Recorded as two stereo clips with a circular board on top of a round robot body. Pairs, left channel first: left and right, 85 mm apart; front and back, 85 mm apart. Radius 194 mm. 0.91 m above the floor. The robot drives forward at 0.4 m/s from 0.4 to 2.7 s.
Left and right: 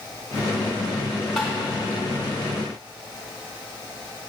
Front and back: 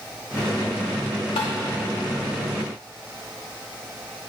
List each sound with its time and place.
1.4 s tapping: 5° left, 0.6 m